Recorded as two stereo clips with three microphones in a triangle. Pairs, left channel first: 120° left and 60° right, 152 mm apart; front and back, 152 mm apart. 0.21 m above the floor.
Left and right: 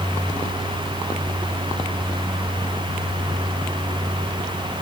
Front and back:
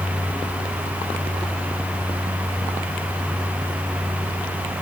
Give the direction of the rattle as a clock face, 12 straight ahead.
I don't hear a rattle.